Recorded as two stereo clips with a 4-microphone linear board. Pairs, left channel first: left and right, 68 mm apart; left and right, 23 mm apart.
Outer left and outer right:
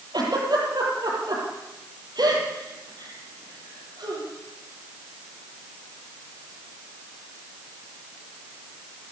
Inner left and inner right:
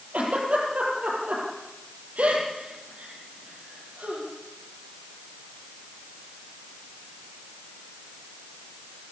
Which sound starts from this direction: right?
A giggle, at 0.1 s.